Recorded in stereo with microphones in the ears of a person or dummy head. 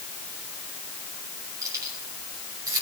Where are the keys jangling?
15° right (ahead or behind), 3 m; by 2.8 s 20° right (ahead or behind), 4.5 m.